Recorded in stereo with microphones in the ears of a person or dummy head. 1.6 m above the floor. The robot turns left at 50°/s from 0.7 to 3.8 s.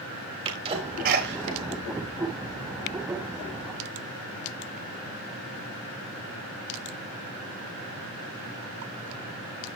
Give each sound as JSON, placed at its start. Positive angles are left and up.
{"t": 0.5, "sound": "a sneeze", "side_deg": -25, "distance_m": 3.5}